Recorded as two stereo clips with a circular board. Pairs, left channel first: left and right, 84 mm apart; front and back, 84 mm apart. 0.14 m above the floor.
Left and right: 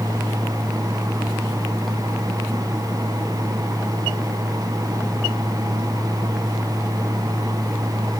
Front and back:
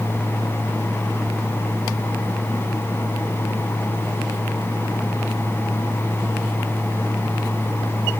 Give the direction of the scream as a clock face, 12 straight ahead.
I don't hear a scream.